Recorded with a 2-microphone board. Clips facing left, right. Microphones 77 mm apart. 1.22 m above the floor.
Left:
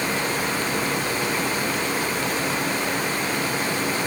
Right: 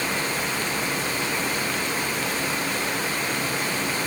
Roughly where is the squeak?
No squeak in this recording.